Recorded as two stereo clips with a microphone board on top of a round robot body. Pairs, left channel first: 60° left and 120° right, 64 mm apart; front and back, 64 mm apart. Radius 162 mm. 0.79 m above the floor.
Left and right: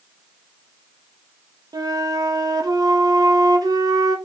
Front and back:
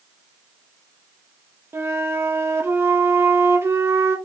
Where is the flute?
130° right, 0.8 m.